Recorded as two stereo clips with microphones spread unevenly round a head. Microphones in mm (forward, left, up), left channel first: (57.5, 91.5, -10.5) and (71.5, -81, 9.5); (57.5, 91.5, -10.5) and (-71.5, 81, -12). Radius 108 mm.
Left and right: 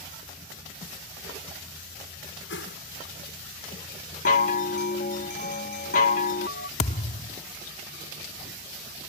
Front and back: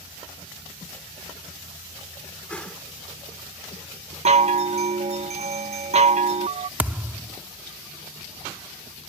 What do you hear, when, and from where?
2.5 s a whoosh: 85° left
4.2 s a chime: 150° left
6.8 s a thud: 120° left